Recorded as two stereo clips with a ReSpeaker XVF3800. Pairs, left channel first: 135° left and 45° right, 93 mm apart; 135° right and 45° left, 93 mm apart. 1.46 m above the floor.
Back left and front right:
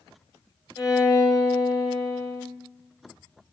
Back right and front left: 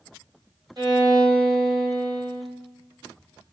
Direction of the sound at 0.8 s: 90° left.